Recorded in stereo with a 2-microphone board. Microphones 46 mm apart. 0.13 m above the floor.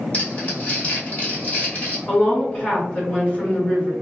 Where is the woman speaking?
30° left (ahead or behind), 1.8 m.